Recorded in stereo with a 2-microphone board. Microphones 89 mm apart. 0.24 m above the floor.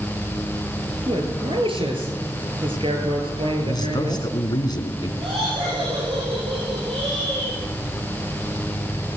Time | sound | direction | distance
1.0 | a man speaking | 75° right (ahead or behind) | 4 m
3.6 | a man speaking | 50° left (ahead or behind) | 2.5 m
5.2 | laughter | 75° right (ahead or behind) | 7.5 m